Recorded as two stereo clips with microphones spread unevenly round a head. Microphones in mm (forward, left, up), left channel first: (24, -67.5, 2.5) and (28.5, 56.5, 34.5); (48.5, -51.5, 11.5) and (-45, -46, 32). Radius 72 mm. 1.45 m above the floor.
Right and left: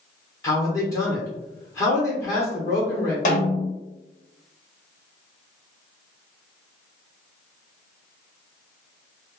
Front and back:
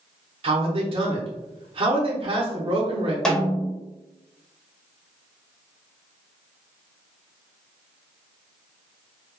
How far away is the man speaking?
About 0.9 m.